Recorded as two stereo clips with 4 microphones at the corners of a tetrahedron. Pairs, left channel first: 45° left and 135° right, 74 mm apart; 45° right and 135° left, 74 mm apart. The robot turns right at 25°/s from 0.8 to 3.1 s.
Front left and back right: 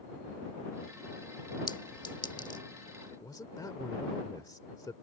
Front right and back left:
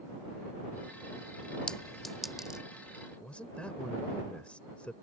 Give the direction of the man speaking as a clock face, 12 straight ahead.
11 o'clock.